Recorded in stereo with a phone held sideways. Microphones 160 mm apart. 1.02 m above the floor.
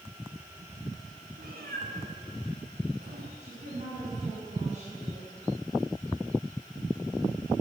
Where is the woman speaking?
50° right (ahead or behind), 9 m.